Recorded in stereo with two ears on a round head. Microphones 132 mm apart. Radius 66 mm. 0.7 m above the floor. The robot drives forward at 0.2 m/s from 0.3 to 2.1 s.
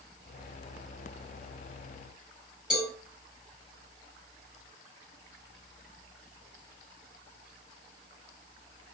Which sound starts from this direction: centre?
A cowbell, at 2.7 s.